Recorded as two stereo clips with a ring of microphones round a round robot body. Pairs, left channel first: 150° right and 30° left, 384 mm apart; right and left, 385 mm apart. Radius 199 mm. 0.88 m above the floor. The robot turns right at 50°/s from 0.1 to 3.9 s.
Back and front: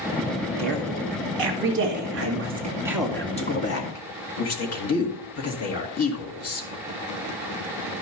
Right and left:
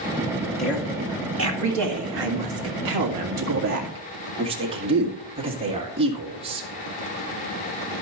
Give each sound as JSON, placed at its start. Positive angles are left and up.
{"t": 0.6, "sound": "a woman speaking", "azimuth_deg": 0, "distance_m": 2.0}